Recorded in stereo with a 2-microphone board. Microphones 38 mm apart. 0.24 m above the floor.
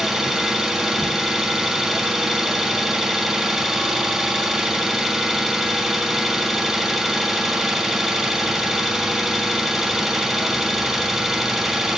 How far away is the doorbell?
I don't hear a doorbell.